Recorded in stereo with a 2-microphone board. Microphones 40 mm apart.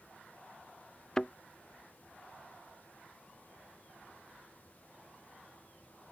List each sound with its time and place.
1.2 s a thud: 15° left (ahead or behind)